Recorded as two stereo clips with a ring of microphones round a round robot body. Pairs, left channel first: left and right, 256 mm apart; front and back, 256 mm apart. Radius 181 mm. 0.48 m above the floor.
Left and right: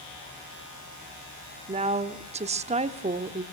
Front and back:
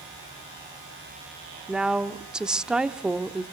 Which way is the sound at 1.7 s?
100° right.